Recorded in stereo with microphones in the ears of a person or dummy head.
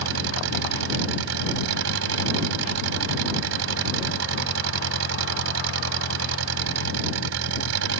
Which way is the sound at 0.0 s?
70° right (ahead or behind).